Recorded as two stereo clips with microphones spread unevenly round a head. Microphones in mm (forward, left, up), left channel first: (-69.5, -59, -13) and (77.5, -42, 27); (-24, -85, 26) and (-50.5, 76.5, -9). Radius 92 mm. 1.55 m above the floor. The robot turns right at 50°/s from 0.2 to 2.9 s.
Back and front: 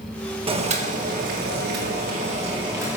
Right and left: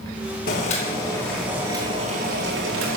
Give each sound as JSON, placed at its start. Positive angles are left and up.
{"t": 0.5, "sound": "boiling", "azimuth_deg": -40, "distance_m": 2.0}